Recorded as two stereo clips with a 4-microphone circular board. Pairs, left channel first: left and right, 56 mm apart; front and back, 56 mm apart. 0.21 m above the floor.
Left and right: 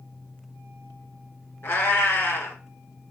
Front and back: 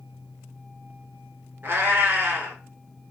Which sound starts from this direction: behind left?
A cat meowing, at 1.6 s.